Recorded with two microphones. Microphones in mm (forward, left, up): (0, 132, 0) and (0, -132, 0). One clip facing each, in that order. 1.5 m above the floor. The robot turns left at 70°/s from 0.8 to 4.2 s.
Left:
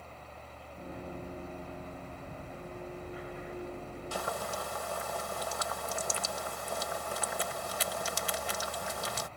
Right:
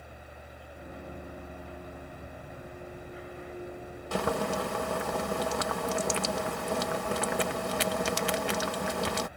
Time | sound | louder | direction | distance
4.1 | boiling | right 10 dB | 65° right (ahead or behind) | ?